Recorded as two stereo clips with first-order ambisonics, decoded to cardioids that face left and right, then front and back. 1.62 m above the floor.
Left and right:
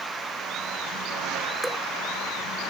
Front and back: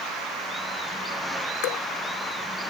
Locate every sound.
1.6 s dripping: straight ahead